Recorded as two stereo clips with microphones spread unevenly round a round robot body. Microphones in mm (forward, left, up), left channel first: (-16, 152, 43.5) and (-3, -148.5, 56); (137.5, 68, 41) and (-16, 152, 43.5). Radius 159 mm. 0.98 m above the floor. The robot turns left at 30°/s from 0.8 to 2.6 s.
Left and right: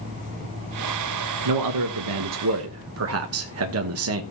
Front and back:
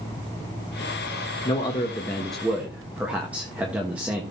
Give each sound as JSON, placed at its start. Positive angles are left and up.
{"t": 1.4, "sound": "a man speaking", "azimuth_deg": -90, "distance_m": 1.2}